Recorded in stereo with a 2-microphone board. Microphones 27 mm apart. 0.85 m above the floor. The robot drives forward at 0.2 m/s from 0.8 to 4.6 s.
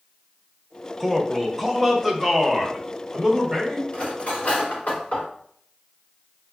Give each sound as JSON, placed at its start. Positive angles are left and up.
{"t": 1.0, "sound": "a man speaking", "side_deg": 0, "distance_m": 0.7}
{"t": 3.9, "sound": "cutlery clinking", "side_deg": 55, "distance_m": 1.6}